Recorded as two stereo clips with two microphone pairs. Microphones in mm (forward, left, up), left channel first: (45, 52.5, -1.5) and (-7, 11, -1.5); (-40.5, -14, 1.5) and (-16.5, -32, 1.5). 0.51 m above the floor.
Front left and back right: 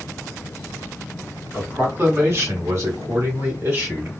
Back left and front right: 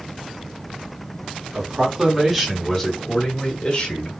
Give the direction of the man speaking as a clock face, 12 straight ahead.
3 o'clock.